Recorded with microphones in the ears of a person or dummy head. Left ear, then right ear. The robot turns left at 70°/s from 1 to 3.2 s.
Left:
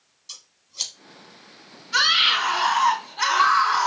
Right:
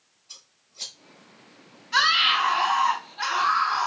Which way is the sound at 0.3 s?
60° left (ahead or behind).